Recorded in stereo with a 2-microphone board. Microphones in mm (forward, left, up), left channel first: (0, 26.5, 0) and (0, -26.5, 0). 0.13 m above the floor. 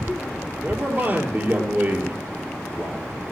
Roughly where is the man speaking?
Right.